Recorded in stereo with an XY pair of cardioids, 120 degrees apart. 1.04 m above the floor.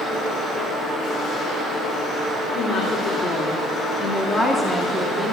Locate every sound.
2.5 s a woman speaking: 70° left, 2.5 m; by 5.3 s 20° right, 2 m